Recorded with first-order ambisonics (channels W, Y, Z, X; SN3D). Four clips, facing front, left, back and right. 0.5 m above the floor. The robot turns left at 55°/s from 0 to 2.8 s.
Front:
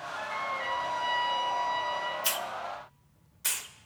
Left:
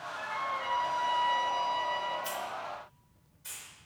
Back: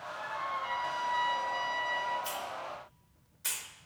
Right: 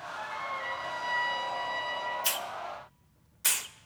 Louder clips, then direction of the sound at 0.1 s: Left 2 dB, front 3 dB; 10° left.